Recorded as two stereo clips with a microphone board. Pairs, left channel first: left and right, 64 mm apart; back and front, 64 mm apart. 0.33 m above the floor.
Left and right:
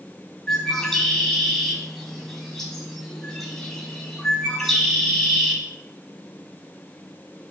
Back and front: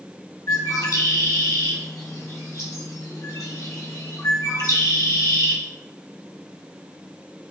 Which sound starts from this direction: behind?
A bird, at 0.5 s.